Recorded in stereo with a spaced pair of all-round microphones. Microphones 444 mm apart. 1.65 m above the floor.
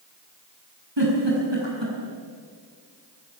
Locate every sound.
1.0 s a giggle: 70° right (ahead or behind), 8 m